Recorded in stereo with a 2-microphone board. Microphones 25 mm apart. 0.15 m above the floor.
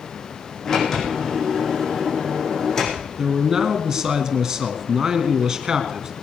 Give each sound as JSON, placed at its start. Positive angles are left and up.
{"t": 0.7, "sound": "a sliding door", "side_deg": 15, "distance_m": 5.5}
{"t": 3.2, "sound": "a man speaking", "side_deg": -25, "distance_m": 2.5}